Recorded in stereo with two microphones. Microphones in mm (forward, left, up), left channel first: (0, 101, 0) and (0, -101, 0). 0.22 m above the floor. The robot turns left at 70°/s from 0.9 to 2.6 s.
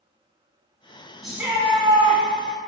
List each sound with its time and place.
1.2 s a shout: straight ahead, 1.3 m; by 2.2 s 70° right, 1.3 m